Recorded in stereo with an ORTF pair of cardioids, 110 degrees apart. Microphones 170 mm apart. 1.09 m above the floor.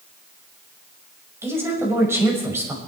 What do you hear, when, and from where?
1.4 s a woman speaking: 15° right, 6 m